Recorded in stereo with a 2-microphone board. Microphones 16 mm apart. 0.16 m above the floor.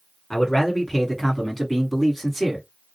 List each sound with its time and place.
0.3 s a man speaking: 35° left (ahead or behind), 1.5 m; by 2.6 s 15° left (ahead or behind), 1.3 m